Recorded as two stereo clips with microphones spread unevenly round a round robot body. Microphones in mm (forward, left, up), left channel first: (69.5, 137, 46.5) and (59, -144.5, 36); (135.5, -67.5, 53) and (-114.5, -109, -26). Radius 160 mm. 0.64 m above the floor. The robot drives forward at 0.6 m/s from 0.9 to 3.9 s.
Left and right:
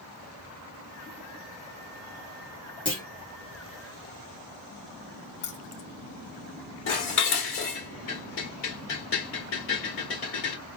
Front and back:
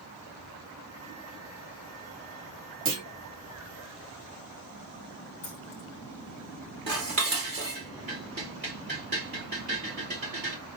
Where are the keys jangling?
100° left, 1.0 m.